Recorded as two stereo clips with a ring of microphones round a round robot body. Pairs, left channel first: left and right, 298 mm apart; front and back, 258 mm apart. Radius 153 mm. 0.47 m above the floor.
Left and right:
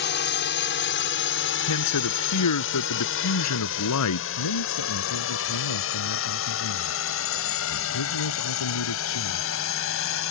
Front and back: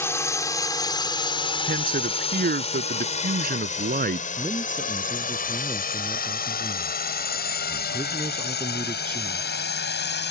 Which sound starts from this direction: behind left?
A man speaking, at 1.7 s.